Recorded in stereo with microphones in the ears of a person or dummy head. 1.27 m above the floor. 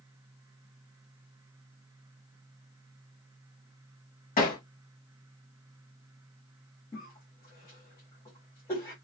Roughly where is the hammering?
Left.